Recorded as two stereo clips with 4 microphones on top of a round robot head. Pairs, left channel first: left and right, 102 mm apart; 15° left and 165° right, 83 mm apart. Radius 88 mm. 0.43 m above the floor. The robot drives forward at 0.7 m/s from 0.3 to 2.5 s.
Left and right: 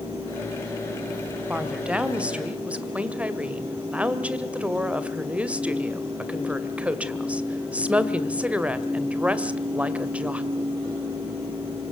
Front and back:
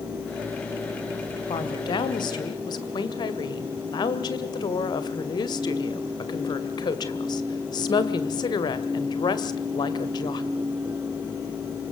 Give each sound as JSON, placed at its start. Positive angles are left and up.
{"t": 1.5, "sound": "a woman speaking", "azimuth_deg": -10, "distance_m": 2.5}